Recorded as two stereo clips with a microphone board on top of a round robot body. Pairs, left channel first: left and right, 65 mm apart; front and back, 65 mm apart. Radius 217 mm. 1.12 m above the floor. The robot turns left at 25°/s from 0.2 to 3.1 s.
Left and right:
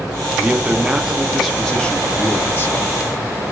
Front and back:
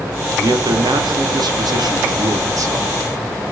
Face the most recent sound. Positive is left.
turn(degrees=135)